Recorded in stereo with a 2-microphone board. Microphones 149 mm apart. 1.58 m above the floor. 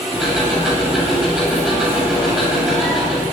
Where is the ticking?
5° right (ahead or behind), 9.5 m.